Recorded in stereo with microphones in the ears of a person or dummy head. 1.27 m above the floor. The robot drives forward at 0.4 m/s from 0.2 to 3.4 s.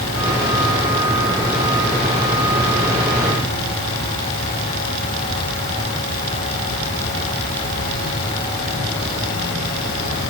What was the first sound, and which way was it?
Only background noise.